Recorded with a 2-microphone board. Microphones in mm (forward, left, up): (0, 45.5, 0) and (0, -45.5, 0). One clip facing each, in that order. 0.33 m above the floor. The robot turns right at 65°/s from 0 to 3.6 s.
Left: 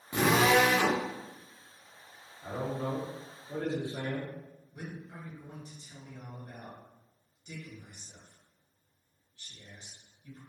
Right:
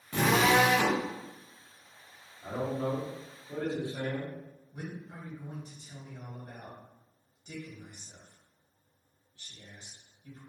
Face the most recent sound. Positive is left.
turn(degrees=-20)  # may be behind; listen again after turning